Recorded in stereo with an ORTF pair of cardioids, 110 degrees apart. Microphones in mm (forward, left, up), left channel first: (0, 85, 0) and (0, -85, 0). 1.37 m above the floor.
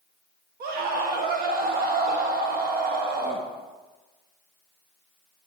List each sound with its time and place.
0.6 s a scream: 70° right, 1.1 m